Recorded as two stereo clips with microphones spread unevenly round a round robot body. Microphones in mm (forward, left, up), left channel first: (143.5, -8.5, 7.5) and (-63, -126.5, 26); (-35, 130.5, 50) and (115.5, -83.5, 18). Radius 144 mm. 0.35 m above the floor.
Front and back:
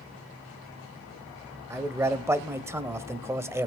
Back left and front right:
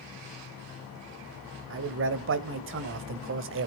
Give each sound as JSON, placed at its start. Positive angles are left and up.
{"t": 1.7, "sound": "a man speaking", "azimuth_deg": -70, "distance_m": 1.4}